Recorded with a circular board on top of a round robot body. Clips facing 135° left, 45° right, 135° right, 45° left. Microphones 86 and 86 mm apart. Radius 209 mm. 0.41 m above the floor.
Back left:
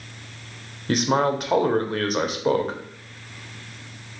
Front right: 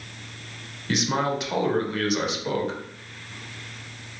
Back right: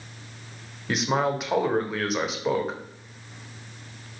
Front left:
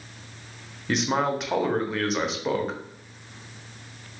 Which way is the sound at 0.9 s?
140° left.